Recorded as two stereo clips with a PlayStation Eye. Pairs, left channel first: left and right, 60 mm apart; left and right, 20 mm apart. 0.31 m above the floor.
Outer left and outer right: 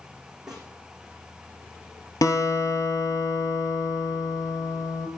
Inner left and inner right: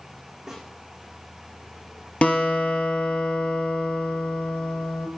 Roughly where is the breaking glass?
No breaking glass in this recording.